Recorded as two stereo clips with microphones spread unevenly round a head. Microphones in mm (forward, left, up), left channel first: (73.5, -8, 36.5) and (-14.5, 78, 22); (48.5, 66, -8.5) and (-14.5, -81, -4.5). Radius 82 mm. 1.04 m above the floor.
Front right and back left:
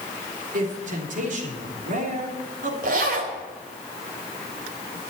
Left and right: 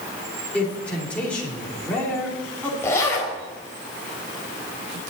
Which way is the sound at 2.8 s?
145° left.